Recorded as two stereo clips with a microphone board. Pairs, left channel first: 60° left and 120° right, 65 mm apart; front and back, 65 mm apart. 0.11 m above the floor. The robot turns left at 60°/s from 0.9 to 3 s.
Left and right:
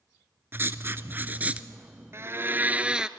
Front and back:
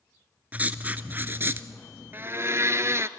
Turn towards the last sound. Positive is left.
turn(degrees=170)